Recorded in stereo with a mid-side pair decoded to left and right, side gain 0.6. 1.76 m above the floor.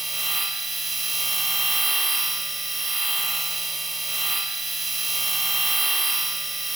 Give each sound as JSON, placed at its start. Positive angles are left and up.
{"t": 0.0, "sound": "a machine running", "azimuth_deg": -5, "distance_m": 1.4}